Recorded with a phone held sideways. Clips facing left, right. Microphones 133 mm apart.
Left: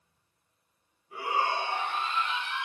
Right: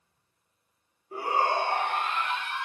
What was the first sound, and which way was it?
A shout, 40° right (ahead or behind).